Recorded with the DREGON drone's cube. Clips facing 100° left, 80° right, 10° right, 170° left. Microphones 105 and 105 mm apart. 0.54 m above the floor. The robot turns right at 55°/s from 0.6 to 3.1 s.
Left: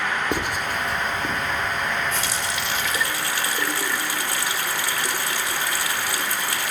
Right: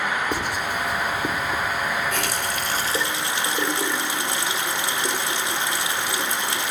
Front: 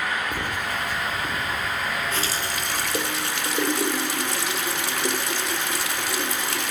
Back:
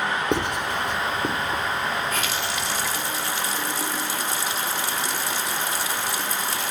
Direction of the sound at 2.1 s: 70° right.